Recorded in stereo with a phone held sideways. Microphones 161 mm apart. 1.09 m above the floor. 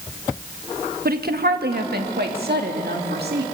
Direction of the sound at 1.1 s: 70° right (ahead or behind).